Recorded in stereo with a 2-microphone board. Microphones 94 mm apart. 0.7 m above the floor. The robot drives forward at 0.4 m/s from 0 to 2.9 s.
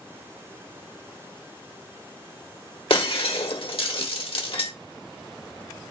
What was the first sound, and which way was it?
Breaking glass, 75° left (ahead or behind).